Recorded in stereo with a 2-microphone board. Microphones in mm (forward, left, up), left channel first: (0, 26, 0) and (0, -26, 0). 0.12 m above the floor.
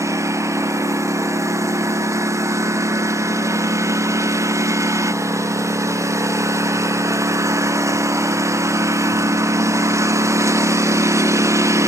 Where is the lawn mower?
65° right (ahead or behind).